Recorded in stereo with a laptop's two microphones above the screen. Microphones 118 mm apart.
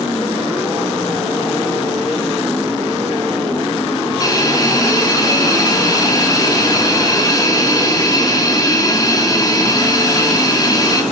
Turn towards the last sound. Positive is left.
turn(degrees=30)  # may be behind; listen again after turning